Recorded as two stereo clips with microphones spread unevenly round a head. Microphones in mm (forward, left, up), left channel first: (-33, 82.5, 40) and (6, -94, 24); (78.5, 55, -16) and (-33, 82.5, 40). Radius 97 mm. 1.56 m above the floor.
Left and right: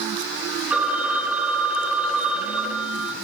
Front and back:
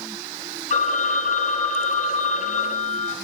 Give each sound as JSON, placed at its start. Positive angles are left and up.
{"t": 0.7, "sound": "a phone ringing", "azimuth_deg": 10, "distance_m": 6.0}